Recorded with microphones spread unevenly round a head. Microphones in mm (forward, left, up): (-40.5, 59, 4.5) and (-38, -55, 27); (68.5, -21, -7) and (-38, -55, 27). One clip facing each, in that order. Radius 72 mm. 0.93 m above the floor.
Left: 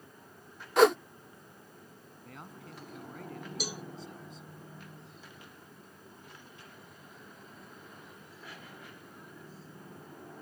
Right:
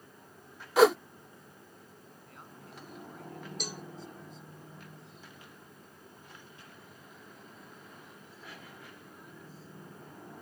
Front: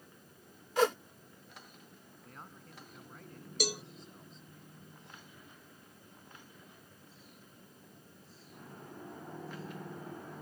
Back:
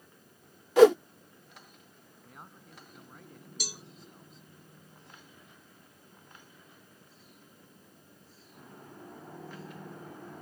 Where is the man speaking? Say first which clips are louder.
Left 5 dB, back 1 dB; 115° left.